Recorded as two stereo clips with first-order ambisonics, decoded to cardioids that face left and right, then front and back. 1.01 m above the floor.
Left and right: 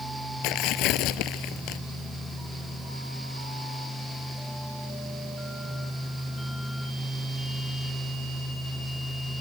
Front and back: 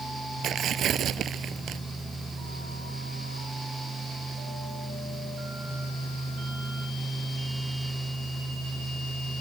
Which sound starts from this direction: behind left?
Tearing paper, at 0.4 s.